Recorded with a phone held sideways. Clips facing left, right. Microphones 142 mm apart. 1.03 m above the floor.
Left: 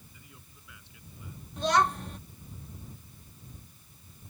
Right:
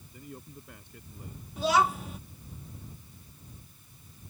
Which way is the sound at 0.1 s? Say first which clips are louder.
Right 11 dB; 50° right (ahead or behind).